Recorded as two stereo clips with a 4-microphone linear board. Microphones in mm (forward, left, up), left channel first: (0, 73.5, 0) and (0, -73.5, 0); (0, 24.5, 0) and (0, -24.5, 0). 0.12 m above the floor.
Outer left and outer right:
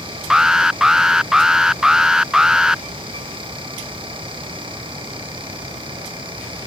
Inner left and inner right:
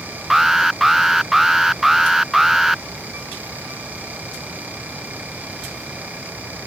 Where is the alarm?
5° right (ahead or behind).